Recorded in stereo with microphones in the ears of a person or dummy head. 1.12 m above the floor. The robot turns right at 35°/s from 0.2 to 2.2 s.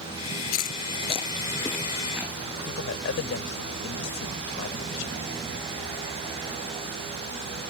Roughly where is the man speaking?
Left.